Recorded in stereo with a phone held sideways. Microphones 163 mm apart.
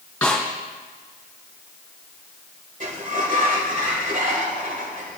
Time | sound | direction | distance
0.2 | a snare drum | 10° left (ahead or behind) | 4 m
2.8 | a sliding door | 55° right (ahead or behind) | 1.8 m